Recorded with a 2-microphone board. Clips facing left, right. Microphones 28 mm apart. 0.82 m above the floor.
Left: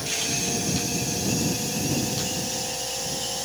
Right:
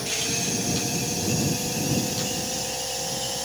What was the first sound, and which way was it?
Only background noise.